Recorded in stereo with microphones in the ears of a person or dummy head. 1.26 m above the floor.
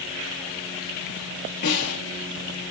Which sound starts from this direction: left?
A snare drum, at 1.6 s.